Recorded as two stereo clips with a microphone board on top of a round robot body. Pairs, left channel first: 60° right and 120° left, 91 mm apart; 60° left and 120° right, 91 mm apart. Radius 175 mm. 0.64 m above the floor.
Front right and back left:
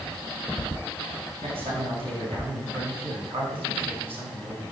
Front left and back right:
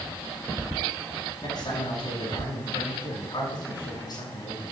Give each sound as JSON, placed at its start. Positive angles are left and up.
{"t": 1.4, "sound": "a man speaking", "azimuth_deg": 105, "distance_m": 6.0}